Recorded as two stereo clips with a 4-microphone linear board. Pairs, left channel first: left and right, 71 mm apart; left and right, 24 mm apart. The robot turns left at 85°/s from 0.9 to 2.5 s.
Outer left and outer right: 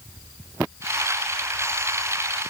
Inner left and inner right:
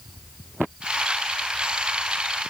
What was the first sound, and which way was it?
Only background noise.